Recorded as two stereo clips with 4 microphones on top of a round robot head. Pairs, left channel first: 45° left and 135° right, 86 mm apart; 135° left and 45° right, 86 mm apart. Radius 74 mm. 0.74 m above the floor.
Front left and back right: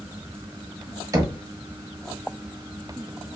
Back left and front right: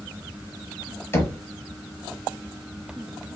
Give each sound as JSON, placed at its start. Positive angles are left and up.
{"t": 1.1, "sound": "knocking", "azimuth_deg": -175, "distance_m": 1.1}